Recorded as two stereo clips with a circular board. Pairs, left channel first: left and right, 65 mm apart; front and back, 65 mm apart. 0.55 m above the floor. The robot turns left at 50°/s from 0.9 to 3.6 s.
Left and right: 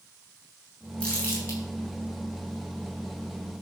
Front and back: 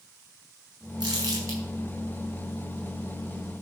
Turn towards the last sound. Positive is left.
turn(degrees=35)